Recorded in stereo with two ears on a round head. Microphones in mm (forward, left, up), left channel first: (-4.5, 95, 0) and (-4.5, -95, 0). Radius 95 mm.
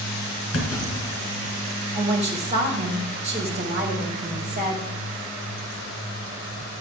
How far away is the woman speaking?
About 3 m.